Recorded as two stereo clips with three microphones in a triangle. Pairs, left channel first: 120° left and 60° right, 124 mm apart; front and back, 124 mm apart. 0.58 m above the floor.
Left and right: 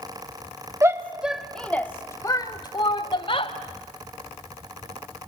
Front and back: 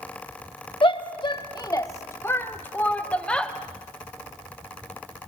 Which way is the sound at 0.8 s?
5° right.